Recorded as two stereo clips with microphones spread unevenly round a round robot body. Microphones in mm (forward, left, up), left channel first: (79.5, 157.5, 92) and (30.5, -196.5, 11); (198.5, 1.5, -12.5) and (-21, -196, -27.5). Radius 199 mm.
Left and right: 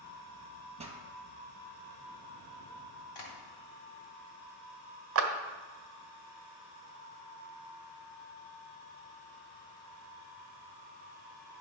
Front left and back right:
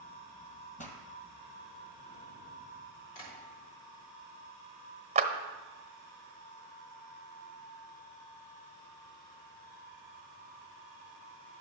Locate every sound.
0.8 s a pop: 25° right, 2 m
3.1 s tapping: 55° left, 3.5 m
5.2 s a clap: 80° right, 1.3 m